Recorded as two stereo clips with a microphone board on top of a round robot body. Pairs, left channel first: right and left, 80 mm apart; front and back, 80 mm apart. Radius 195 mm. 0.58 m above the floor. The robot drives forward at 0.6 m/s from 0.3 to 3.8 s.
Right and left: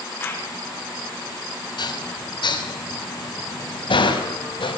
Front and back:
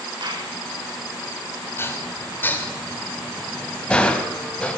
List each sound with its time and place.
0.2 s a clap: 155° right, 7 m
1.8 s dishes clattering: 60° right, 4 m; by 4.8 s 80° right, 4 m